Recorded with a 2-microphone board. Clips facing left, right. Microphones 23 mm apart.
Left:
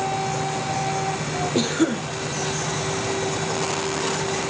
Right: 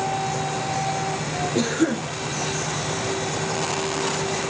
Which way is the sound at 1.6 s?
20° left (ahead or behind).